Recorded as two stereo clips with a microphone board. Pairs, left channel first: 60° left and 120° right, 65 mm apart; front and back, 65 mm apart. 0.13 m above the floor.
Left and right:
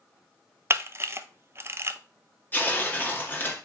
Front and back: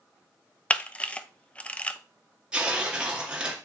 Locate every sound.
0.7 s a camera shutter: 70° right, 0.8 m
2.5 s tearing paper: 110° left, 2 m